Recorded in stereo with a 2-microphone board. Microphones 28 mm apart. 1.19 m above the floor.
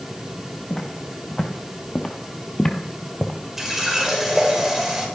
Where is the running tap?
10° right (ahead or behind), 3 m.